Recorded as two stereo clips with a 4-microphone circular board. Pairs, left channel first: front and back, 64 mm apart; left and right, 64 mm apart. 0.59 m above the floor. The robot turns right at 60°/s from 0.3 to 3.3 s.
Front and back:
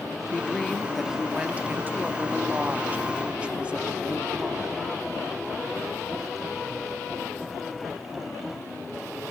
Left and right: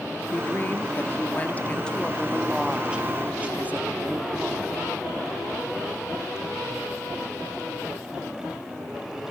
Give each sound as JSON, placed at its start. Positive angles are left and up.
{"t": 0.3, "sound": "a woman speaking", "azimuth_deg": 55, "distance_m": 1.1}